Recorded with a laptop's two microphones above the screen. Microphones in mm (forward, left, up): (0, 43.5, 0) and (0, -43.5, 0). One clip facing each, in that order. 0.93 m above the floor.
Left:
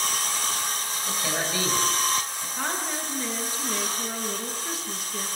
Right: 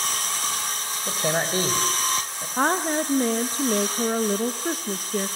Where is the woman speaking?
50° right (ahead or behind), 1.0 m.